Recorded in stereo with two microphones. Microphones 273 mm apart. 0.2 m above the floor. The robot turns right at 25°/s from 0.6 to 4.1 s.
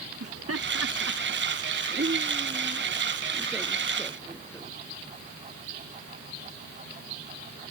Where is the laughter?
55° right (ahead or behind); by 4.7 s 10° left (ahead or behind).